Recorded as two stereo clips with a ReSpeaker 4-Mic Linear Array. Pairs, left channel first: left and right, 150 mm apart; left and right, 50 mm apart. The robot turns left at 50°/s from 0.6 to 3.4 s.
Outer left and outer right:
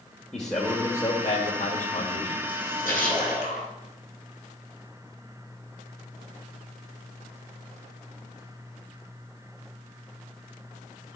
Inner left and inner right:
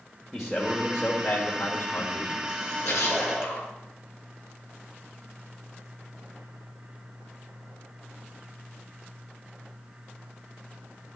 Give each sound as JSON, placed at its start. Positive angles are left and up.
{"t": 0.3, "sound": "a man speaking", "azimuth_deg": 175, "distance_m": 2.0}
{"t": 2.5, "sound": "a splash", "azimuth_deg": 105, "distance_m": 4.0}